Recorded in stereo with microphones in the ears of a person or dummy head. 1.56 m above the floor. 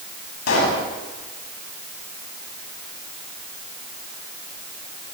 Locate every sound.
0.5 s a pop: 85° left, 9 m